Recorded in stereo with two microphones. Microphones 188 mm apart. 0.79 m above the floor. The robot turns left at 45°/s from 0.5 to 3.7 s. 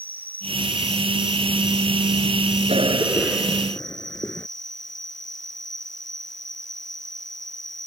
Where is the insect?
125° right; by 7.9 s 90° left.